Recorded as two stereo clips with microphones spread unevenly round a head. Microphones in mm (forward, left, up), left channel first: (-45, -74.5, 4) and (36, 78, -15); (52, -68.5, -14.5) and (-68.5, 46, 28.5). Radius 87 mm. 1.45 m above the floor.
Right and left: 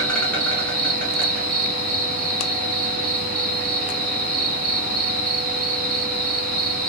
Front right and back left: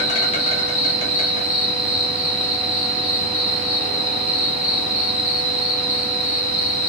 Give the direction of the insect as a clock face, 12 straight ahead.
1 o'clock.